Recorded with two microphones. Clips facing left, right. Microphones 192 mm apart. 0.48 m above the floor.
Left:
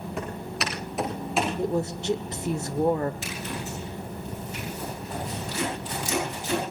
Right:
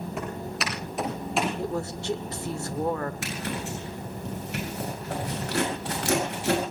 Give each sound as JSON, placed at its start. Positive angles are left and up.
{"t": 0.2, "sound": "footsteps", "side_deg": 0, "distance_m": 9.5}
{"t": 1.6, "sound": "a woman speaking", "side_deg": 20, "distance_m": 1.0}
{"t": 3.2, "sound": "a zipper", "side_deg": -80, "distance_m": 9.0}